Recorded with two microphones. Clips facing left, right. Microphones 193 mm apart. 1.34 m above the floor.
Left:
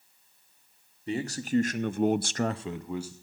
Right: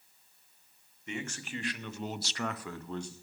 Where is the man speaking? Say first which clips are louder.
Left 10 dB; 35° left (ahead or behind), 1.4 m; by 3.1 s 5° left (ahead or behind), 1.0 m.